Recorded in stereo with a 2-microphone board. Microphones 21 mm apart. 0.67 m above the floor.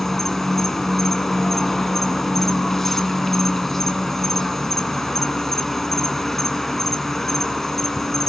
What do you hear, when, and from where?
0.0 s an insect: 15° left (ahead or behind), 1.7 m